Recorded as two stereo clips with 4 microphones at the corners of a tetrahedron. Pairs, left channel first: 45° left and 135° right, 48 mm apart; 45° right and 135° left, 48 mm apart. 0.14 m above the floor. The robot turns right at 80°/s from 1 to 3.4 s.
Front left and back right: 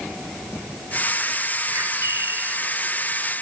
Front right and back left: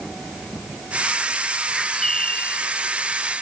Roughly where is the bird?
Behind right.